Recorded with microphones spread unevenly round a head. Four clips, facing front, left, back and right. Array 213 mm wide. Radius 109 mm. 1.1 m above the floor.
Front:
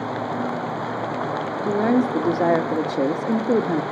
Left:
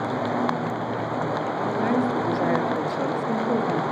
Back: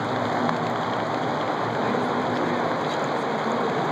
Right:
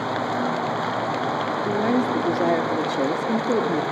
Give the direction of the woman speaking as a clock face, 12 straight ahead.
1 o'clock.